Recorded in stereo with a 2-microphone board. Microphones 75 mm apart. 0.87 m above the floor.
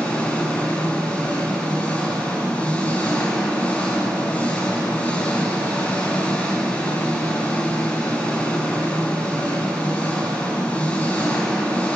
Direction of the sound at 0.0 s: 20° left (ahead or behind).